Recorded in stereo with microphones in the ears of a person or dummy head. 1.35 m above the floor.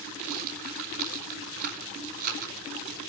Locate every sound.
0.2 s a rattle: 45° right (ahead or behind), 4 m